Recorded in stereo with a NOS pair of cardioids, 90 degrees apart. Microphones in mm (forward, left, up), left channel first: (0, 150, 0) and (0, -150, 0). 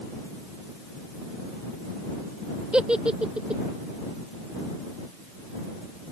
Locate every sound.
2.7 s a giggle: 5° right